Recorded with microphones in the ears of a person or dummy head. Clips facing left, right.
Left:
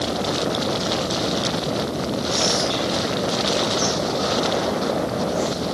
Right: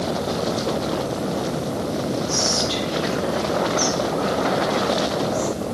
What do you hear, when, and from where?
2.3 s whispering: 5° right (ahead or behind), 1.7 m